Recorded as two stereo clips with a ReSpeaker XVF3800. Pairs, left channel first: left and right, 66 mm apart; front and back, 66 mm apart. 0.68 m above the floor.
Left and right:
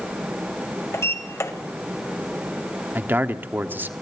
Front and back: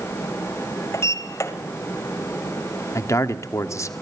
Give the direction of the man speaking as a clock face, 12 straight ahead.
1 o'clock.